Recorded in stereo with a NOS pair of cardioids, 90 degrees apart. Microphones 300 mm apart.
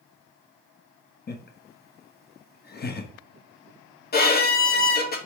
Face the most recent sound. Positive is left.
turn(degrees=30)